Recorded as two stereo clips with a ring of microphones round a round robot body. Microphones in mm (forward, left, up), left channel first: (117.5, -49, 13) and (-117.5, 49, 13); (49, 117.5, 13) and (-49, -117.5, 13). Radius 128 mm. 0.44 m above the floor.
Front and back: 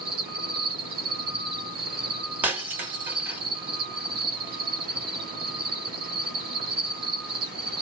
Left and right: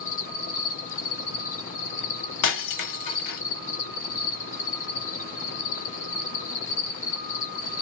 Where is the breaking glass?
75° left, 1.0 m.